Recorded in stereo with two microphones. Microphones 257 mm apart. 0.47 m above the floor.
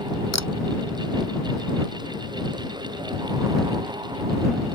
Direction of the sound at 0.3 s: 85° left.